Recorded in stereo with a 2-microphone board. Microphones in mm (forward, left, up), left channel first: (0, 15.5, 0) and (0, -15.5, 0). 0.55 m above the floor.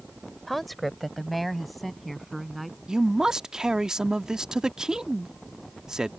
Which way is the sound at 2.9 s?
20° right (ahead or behind).